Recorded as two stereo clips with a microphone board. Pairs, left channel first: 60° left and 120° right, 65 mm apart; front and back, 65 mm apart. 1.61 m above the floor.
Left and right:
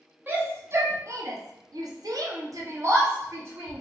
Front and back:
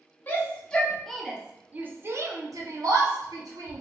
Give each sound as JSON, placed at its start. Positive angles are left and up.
{"t": 0.3, "sound": "a shout", "azimuth_deg": -60, "distance_m": 1.1}